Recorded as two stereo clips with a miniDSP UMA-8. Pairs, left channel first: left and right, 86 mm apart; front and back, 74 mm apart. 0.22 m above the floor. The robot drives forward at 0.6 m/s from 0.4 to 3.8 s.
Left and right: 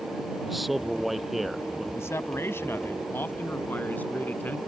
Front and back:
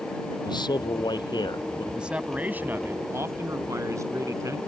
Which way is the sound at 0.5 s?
Straight ahead.